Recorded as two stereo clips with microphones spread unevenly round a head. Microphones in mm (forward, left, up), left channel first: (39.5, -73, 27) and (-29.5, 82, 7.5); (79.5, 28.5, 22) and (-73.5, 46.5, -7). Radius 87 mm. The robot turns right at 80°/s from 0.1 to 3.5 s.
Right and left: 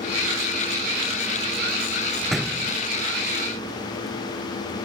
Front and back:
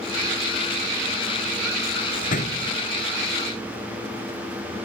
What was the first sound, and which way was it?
A door slam, 10° left.